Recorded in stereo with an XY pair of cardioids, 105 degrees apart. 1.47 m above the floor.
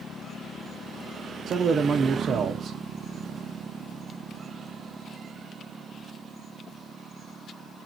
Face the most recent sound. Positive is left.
turn(degrees=-55)